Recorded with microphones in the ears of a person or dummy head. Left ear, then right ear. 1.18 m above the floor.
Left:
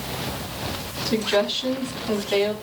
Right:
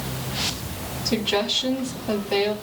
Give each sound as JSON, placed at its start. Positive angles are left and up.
{"t": 1.1, "sound": "a woman speaking", "side_deg": 0, "distance_m": 3.5}